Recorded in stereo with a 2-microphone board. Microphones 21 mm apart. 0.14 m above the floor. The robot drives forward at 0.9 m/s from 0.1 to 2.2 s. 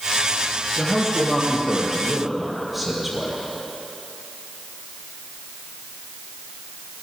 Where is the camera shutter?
I don't hear a camera shutter.